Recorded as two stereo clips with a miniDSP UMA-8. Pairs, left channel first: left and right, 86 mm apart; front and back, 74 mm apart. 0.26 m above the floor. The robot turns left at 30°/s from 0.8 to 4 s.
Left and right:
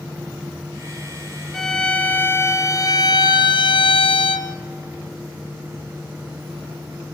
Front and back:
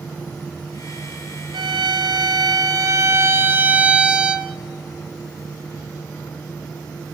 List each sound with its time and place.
1.5 s a violin: 175° left, 1.5 m; by 4.5 s 105° left, 1.5 m